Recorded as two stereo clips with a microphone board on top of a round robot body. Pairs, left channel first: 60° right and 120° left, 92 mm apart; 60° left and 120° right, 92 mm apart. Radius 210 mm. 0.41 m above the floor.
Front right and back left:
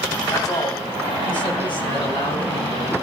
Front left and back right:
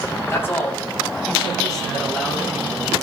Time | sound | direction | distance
0.3 | a man speaking | 5° right | 4 m